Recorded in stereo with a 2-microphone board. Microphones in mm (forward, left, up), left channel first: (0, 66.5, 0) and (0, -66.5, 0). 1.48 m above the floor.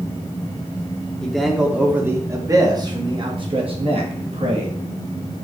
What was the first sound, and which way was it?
A man speaking, 5° left (ahead or behind).